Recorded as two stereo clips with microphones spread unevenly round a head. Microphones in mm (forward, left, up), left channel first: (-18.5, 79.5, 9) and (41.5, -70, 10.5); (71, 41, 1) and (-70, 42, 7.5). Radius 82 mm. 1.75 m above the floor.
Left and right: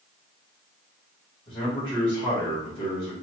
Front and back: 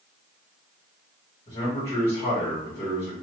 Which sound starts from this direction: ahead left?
A man speaking, at 1.5 s.